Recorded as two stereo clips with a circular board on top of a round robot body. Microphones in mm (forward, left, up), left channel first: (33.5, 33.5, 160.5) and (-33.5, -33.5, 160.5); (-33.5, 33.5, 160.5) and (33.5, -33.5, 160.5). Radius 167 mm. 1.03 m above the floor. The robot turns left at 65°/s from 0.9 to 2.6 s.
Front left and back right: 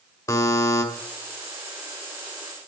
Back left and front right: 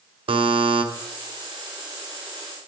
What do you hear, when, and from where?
0.3 s a buzzer: 10° right, 1.9 m